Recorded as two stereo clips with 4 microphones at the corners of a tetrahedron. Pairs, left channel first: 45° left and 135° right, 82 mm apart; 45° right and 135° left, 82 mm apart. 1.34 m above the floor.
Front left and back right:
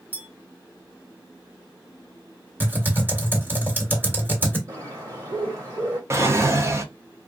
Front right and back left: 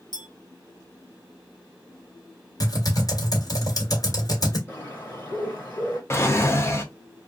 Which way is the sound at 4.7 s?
105° right.